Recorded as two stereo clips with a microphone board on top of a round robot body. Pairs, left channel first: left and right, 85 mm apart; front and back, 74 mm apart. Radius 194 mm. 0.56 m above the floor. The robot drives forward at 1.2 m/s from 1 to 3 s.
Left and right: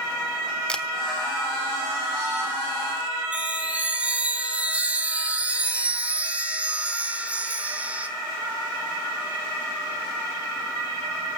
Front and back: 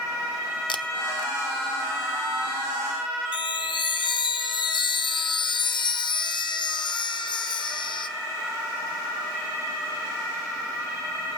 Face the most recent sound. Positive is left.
turn(degrees=-15)